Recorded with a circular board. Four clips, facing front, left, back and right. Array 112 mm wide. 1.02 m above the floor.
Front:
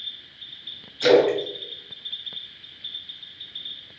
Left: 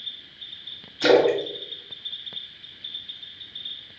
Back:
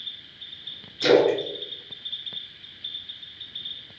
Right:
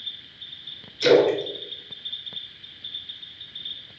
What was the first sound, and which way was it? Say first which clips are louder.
A splash: even, front 1 dB; 90° left.